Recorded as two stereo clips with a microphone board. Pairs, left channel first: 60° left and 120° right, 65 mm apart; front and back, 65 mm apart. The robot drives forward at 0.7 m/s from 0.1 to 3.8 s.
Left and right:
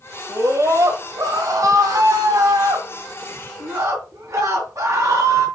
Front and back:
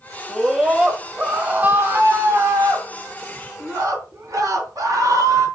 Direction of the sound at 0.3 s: 90° right.